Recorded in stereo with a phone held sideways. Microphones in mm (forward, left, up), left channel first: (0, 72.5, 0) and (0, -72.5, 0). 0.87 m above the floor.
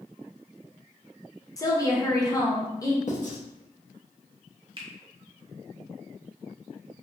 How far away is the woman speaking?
About 0.7 m.